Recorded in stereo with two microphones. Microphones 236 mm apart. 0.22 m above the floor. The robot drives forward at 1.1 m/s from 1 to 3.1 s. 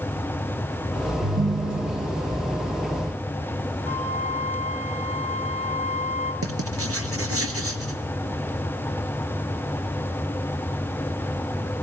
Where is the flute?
70° right (ahead or behind), 3 m.